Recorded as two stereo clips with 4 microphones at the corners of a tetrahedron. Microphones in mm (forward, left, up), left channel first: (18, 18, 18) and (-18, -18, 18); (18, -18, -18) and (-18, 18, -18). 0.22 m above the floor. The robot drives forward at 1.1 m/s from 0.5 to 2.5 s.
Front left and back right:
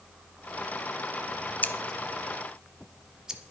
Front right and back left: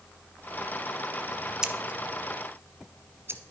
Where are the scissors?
70° left, 0.8 m; by 3.5 s 150° left, 1.1 m.